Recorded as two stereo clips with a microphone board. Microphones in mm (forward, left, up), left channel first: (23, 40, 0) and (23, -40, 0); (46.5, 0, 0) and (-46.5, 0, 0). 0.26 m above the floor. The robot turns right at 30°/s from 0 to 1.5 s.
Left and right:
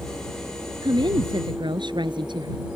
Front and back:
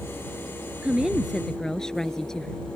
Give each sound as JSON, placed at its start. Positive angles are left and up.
{"t": 0.8, "sound": "a woman speaking", "azimuth_deg": -105}